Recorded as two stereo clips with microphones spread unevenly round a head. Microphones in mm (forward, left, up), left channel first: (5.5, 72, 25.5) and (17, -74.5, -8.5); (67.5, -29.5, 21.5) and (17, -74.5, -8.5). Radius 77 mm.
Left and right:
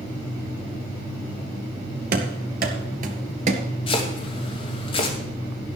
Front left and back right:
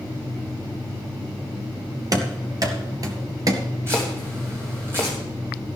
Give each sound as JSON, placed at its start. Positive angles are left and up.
{"t": 2.1, "sound": "running footsteps", "azimuth_deg": -100, "distance_m": 2.0}
{"t": 3.9, "sound": "chopping", "azimuth_deg": 140, "distance_m": 2.5}